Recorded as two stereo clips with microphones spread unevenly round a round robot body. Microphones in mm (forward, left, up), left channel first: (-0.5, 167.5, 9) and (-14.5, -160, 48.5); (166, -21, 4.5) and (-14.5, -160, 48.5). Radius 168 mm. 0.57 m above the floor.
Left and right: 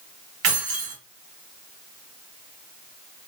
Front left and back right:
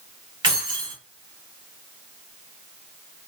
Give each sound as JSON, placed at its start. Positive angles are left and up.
{"t": 0.4, "sound": "keys jangling", "azimuth_deg": -70, "distance_m": 1.5}